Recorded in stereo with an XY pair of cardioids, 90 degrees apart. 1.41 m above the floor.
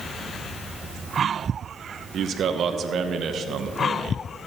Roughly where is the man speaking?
Ahead right.